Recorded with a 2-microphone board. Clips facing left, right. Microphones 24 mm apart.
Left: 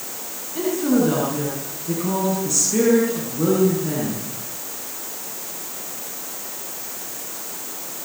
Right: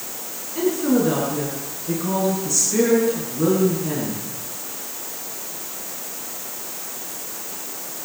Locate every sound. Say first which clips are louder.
0.6 s a woman speaking: even; centre (ahead or behind), 9.5 m